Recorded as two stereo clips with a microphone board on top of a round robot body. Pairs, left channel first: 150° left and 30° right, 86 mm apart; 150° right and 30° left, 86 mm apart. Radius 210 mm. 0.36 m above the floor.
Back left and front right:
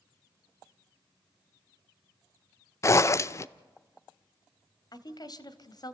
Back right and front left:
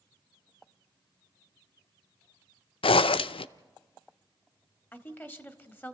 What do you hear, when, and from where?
2.8 s a zipper: 155° right, 0.5 m
4.9 s a woman speaking: 150° left, 2.0 m